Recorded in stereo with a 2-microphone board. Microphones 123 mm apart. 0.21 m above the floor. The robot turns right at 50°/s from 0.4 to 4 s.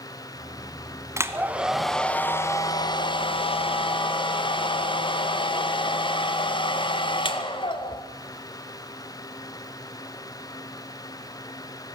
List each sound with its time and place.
1.2 s a hair dryer: 30° right, 1.5 m; by 8.0 s 110° left, 1.5 m